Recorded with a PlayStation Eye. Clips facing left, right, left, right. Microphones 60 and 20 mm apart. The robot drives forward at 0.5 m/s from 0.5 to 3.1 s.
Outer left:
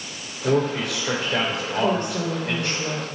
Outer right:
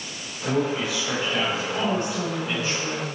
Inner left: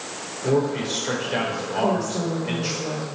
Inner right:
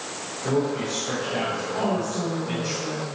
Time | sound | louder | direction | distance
0.4 | a man speaking | outer left 3 dB, inner left 2 dB | 85° left | 5 m
1.8 | a woman speaking | outer left 6 dB, inner left 4 dB | 55° left (ahead or behind) | 3.5 m